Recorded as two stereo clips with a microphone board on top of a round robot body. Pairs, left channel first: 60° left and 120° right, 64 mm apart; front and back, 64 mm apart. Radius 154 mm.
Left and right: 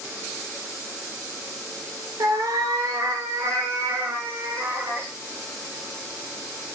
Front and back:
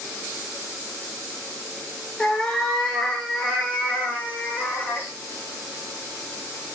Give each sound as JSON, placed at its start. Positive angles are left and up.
{"t": 2.2, "sound": "a cat meowing", "azimuth_deg": -75, "distance_m": 7.5}